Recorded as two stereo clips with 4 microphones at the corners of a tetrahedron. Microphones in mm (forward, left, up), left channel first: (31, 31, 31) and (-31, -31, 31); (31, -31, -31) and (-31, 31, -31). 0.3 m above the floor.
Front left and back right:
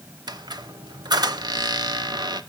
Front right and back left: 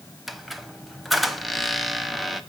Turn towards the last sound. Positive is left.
turn(degrees=-135)